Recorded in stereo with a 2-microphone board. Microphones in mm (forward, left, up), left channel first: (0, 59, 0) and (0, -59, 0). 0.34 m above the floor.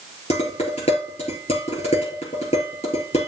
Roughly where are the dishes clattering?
Left.